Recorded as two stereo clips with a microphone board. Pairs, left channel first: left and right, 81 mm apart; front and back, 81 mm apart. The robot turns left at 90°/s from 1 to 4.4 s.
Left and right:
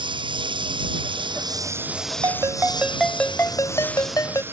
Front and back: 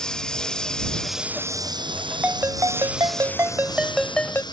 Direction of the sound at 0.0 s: 80° right.